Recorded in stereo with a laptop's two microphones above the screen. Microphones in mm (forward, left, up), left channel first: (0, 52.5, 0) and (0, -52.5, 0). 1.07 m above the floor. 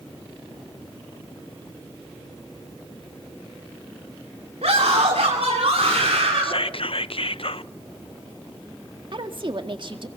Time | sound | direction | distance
4.6 | a scream | 80° right | 3 m
6.4 | whispering | 60° left (ahead or behind) | 0.5 m
9.1 | a woman speaking | 50° right (ahead or behind) | 1.9 m